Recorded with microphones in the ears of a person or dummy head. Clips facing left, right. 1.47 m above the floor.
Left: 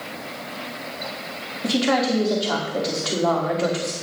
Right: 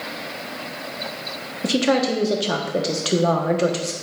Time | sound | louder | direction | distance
1.6 | a woman speaking | right 2 dB | 35° right (ahead or behind) | 1.1 m